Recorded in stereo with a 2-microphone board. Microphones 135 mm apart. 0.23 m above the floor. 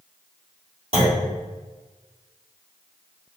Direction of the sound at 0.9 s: 45° right (ahead or behind).